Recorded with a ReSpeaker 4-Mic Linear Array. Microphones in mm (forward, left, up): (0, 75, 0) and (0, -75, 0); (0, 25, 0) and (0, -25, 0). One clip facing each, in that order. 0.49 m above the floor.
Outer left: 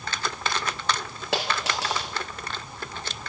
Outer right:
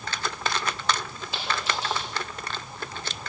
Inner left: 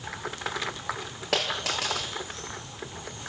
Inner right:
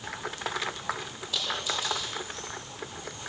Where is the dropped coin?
75° left (ahead or behind), 3.5 m.